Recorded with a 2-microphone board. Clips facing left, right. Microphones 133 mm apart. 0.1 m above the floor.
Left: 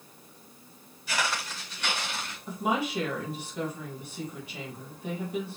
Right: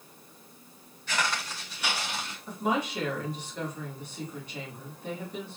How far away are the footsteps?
About 3 m.